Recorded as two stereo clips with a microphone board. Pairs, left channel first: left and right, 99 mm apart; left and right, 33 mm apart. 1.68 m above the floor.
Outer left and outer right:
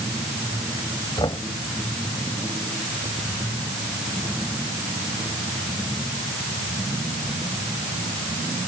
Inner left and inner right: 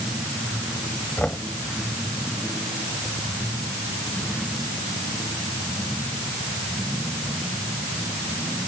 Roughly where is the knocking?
Left.